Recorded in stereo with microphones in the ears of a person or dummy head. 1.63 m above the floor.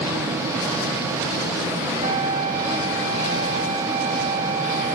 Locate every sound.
2.0 s a flute: 40° right (ahead or behind), 0.8 m